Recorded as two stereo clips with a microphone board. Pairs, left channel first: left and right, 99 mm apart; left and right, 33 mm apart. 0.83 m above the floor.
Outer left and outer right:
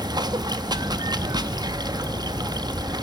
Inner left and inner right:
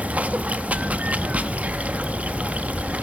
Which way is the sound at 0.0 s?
40° right (ahead or behind).